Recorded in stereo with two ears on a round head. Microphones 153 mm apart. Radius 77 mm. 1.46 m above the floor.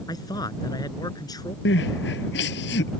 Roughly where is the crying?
Left.